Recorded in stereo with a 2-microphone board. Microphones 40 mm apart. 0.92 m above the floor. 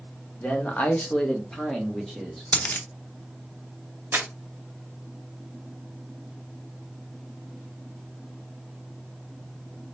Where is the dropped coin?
45° left (ahead or behind), 0.6 m.